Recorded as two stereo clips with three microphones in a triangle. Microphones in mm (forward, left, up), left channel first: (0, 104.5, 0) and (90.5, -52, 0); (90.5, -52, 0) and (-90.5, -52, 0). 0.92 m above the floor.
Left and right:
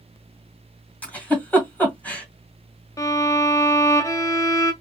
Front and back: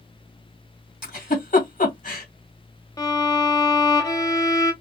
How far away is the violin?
About 0.8 m.